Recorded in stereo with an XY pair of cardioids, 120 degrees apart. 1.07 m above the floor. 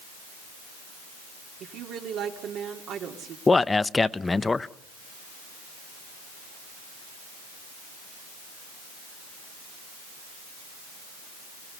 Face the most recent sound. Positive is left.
turn(degrees=20)